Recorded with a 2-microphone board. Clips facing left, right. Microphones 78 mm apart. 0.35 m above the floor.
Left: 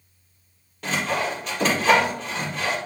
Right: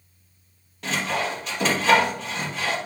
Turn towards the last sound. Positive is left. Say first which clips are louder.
# left 1 dB
turn(degrees=0)  # may be behind; listen again after turning